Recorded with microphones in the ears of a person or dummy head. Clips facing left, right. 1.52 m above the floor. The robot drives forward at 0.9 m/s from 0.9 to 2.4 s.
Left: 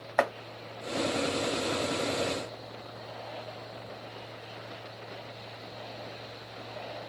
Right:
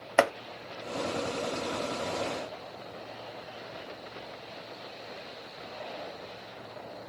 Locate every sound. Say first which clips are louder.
0.2 s chopping: right 3 dB; 45° right (ahead or behind), 0.5 m